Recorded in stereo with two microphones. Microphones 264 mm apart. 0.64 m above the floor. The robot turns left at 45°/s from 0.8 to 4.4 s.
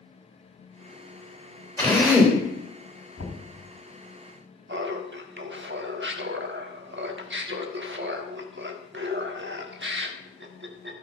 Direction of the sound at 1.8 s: 10° left (ahead or behind).